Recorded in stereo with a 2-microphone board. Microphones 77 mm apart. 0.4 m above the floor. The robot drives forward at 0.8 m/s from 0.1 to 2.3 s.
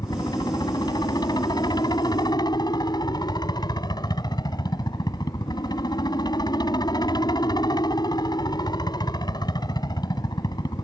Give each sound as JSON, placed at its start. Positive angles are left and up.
{"t": 0.0, "sound": "a helicopter", "side_deg": 65}